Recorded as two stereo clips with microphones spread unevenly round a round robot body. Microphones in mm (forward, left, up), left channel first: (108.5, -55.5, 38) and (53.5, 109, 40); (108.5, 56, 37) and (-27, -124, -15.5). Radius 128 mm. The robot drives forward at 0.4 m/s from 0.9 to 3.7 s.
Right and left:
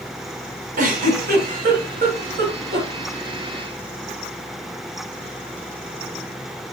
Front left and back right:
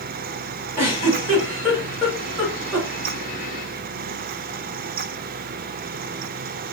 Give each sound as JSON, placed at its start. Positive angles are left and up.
{"t": 0.8, "sound": "a giggle", "azimuth_deg": 140, "distance_m": 2.0}